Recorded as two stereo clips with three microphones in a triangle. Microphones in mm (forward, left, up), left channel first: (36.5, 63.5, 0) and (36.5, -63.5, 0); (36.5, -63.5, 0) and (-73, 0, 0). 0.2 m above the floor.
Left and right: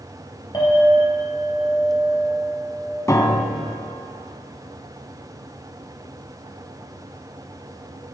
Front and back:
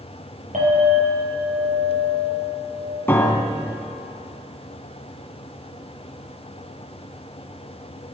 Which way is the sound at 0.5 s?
140° left.